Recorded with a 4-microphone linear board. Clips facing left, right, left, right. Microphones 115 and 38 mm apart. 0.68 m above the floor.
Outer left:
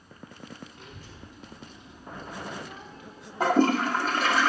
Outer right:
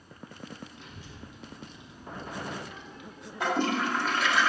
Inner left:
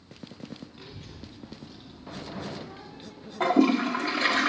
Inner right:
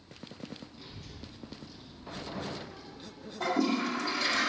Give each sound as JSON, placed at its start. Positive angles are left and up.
{"t": 0.7, "sound": "a child speaking", "side_deg": 45, "distance_m": 2.0}
{"t": 3.4, "sound": "a toilet flushing", "side_deg": 40, "distance_m": 0.9}